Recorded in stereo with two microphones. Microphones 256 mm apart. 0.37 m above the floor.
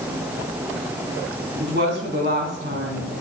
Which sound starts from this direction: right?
A woman speaking, at 1.6 s.